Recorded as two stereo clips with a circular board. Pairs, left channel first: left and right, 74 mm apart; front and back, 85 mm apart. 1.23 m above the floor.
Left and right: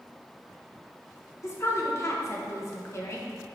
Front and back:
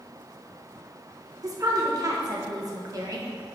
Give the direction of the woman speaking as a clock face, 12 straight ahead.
7 o'clock.